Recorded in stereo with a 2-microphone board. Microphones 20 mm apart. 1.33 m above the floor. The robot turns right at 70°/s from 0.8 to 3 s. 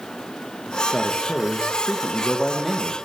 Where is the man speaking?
45° left, 1.2 m; by 3.0 s 170° right, 1.2 m.